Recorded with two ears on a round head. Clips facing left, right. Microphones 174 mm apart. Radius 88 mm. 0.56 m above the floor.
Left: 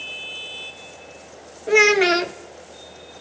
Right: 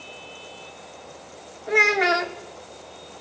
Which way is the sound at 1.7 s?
35° left (ahead or behind).